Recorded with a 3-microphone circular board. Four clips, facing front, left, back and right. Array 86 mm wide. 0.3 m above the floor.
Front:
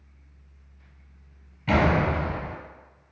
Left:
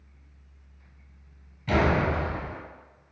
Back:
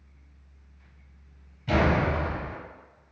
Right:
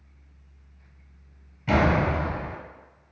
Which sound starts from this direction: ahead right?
A door slam, at 1.7 s.